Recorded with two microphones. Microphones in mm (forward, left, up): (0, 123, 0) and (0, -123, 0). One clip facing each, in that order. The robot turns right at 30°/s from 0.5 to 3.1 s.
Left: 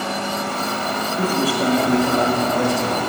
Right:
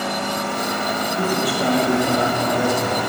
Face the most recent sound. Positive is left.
turn(degrees=-140)